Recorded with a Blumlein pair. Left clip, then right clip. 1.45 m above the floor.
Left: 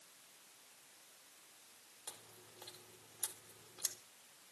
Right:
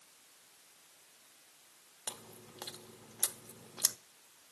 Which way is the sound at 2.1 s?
30° right.